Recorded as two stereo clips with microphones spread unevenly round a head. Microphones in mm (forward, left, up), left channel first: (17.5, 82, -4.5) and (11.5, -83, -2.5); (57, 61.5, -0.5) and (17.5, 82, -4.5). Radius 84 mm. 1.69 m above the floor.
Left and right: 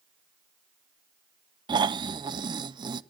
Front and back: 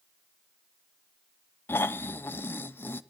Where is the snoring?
35° right, 0.6 m.